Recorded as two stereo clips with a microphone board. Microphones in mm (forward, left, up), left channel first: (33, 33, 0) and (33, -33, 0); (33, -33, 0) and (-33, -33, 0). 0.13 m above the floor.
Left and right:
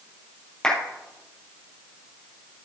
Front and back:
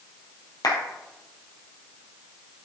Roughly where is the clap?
Ahead.